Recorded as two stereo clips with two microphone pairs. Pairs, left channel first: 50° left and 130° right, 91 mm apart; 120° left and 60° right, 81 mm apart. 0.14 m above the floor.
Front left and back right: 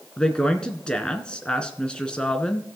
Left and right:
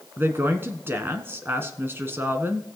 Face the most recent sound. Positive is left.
turn(degrees=-25)